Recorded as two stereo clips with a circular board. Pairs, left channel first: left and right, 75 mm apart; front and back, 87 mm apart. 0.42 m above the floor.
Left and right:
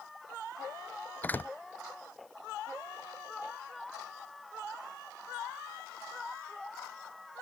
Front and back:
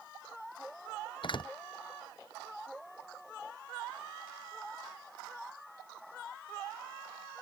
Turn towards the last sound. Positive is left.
turn(degrees=25)